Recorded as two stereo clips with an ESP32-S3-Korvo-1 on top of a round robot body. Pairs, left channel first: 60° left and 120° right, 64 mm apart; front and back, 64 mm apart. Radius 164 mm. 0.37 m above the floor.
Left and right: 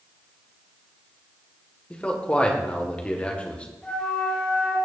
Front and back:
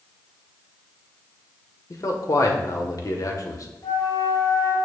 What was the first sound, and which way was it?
A man speaking, 10° right.